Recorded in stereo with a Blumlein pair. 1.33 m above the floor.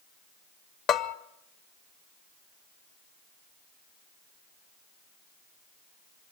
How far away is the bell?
About 0.7 m.